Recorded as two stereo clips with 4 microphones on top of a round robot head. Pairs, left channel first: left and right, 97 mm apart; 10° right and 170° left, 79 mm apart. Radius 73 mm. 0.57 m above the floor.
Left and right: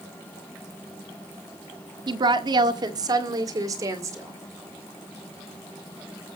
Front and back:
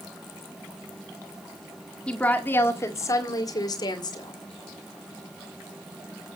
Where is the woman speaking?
80° right, 1.6 m; by 4.4 s 30° right, 2.5 m.